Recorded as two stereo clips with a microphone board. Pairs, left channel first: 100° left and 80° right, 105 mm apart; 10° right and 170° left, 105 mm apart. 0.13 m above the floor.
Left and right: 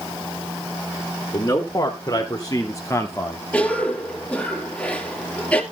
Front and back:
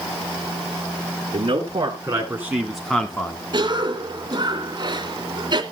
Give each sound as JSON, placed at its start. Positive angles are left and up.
{"t": 1.3, "sound": "a man speaking", "azimuth_deg": 140, "distance_m": 3.0}
{"t": 3.5, "sound": "a cough", "azimuth_deg": 170, "distance_m": 2.0}